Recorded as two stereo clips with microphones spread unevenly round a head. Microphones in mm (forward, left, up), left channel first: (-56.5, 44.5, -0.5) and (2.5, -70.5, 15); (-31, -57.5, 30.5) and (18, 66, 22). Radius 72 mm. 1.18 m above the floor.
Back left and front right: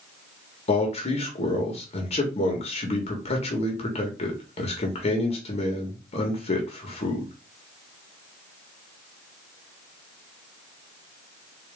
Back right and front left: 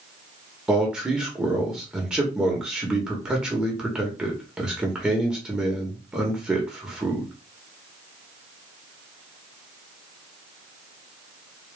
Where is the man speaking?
150° left, 1.5 m.